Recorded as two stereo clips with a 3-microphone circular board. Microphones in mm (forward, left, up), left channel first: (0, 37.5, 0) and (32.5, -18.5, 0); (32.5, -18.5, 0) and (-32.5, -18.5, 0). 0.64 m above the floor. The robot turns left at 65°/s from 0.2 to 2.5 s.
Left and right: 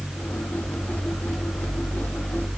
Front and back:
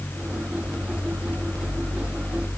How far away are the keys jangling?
I don't hear keys jangling.